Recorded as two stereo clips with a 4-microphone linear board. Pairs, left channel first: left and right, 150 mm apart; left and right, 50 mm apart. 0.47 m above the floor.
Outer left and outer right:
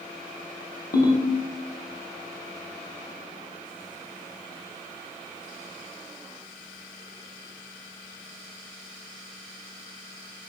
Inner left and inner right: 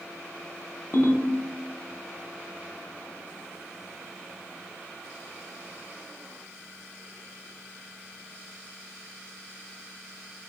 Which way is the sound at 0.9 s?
80° left.